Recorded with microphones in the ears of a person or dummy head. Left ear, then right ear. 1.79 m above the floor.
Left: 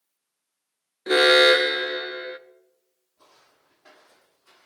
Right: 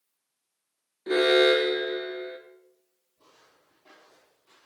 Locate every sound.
1.1 s an alarm: 40° left (ahead or behind), 0.6 m
3.2 s footsteps: 60° left (ahead or behind), 5 m; by 4.7 s 65° left (ahead or behind), 6 m